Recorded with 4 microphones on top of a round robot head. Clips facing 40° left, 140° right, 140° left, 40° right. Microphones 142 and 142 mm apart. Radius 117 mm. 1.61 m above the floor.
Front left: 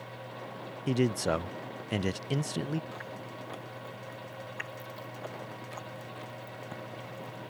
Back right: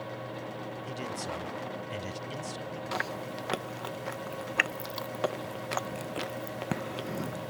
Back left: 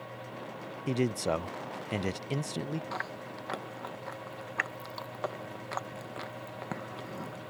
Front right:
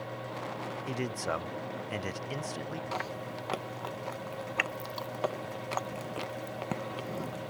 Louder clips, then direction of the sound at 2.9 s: Back right 7 dB, front right 3 dB; 115° right.